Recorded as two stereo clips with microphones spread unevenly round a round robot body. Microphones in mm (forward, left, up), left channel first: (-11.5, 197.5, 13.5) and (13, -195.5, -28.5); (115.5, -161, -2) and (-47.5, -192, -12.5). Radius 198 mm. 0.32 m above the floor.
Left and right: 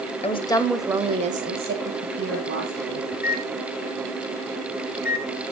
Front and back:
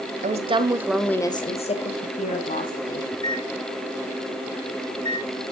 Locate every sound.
0.2 s a woman speaking: 170° left, 1.3 m; by 3.0 s 25° right, 3 m
3.1 s a microwave: 45° left, 1.1 m